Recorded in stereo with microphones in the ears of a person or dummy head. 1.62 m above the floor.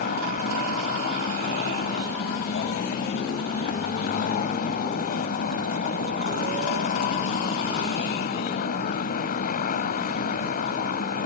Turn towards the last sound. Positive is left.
turn(degrees=45)  # may be behind; listen again after turning